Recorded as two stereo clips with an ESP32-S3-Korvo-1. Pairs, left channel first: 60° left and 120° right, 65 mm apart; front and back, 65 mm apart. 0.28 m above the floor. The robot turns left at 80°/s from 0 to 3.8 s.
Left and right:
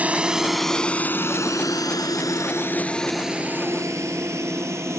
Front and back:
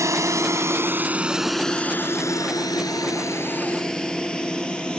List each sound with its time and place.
0.0 s a drone: straight behind; by 5.0 s 75° right